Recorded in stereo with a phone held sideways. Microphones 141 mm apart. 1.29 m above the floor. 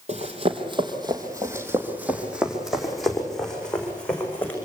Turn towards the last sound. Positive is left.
turn(degrees=10)  # may be behind; listen again after turning